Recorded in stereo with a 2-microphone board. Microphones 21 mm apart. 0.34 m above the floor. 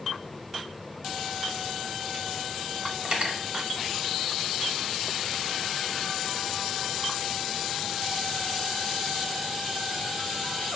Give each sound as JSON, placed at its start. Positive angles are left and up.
{"t": 3.0, "sound": "cutlery clinking", "side_deg": -55, "distance_m": 0.8}